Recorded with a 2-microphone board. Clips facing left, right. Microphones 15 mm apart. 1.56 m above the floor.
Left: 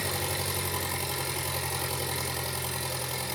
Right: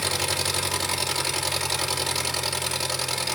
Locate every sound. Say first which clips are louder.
0.0 s an engine running: right 6 dB; 65° right (ahead or behind), 3.5 m